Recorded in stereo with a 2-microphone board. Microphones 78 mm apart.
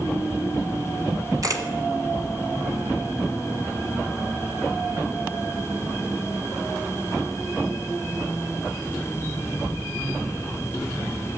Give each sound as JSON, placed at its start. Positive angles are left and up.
{"t": 1.4, "sound": "a camera shutter", "side_deg": -45, "distance_m": 1.5}